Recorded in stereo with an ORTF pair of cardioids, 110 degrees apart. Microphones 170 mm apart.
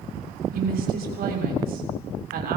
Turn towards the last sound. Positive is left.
turn(degrees=-65)